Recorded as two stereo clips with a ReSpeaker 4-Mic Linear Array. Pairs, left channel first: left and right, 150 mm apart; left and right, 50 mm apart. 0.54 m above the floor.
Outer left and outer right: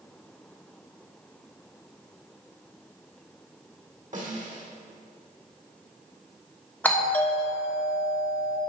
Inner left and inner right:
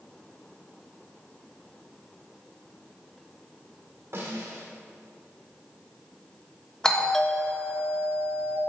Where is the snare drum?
55° right (ahead or behind), 1.5 m.